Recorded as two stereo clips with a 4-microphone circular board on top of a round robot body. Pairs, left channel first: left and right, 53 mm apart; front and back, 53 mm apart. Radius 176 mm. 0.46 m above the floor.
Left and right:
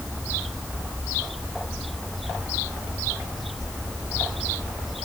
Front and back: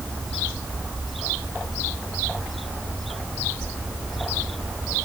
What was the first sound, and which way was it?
Only background noise.